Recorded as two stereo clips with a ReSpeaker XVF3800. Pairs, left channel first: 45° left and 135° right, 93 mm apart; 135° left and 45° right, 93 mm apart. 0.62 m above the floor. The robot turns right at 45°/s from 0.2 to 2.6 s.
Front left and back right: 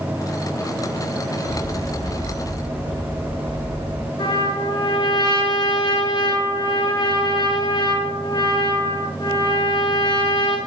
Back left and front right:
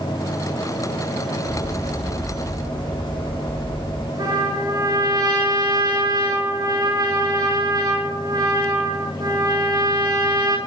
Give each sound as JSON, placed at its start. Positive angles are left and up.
{"t": 1.4, "sound": "a bird", "azimuth_deg": 5, "distance_m": 5.0}
{"t": 4.2, "sound": "a trumpet", "azimuth_deg": 0, "distance_m": 6.0}